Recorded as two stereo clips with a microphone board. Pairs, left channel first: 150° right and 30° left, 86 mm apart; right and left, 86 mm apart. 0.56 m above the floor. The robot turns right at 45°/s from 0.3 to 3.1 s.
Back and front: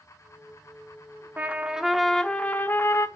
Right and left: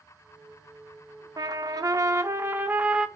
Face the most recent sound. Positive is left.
turn(degrees=170)